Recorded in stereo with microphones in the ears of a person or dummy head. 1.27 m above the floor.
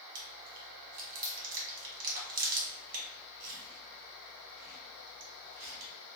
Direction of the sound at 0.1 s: 45° right (ahead or behind).